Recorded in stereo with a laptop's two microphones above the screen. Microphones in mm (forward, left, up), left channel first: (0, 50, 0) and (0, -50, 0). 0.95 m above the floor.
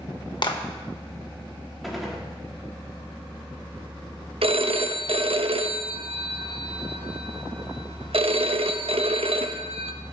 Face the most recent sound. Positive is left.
turn(degrees=-70)  # may be behind; listen again after turning